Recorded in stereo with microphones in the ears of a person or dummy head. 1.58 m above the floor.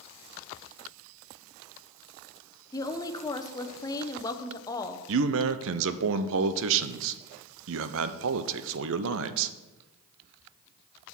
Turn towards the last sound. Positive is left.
turn(degrees=-70)  # may be behind; listen again after turning